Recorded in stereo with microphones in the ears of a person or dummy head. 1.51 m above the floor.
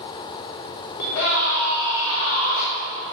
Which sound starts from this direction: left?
A scream, at 1.0 s.